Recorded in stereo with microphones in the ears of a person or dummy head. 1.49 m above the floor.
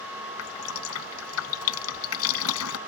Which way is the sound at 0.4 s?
85° left.